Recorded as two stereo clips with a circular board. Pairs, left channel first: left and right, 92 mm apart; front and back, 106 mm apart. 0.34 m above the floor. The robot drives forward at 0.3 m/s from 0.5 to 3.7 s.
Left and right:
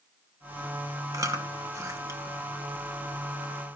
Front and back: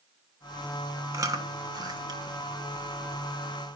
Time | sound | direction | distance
1.1 | chewing | 130° right | 1.3 m